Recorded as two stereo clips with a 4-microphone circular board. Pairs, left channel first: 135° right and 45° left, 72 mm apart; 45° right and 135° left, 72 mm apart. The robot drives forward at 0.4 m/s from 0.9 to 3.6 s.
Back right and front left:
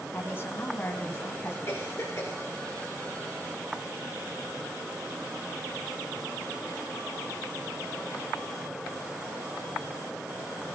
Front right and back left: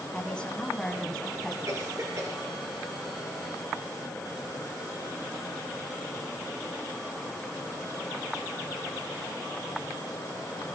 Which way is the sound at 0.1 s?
115° right.